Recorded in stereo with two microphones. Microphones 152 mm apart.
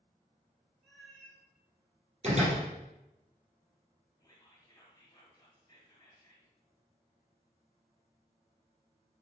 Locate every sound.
0.8 s a cat meowing: centre (ahead or behind), 1.9 m
2.2 s a door slam: 45° right (ahead or behind), 3 m
4.2 s whispering: 25° left (ahead or behind), 1.4 m